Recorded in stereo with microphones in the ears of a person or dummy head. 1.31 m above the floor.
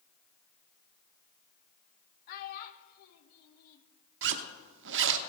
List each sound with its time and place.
2.3 s a child speaking: 55° left (ahead or behind), 1.1 m
4.2 s a zipper: 65° right (ahead or behind), 0.8 m